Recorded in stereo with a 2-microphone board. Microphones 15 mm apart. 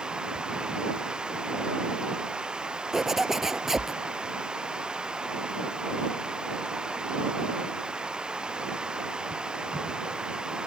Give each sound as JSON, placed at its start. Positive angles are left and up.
{"t": 0.0, "sound": "running water", "side_deg": -80}
{"t": 2.9, "sound": "a zipper", "side_deg": -25}